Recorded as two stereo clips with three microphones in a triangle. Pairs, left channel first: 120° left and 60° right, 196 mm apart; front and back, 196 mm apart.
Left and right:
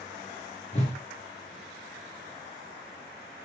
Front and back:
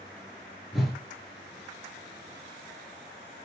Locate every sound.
0.7 s a whoosh: 90° left, 1.0 m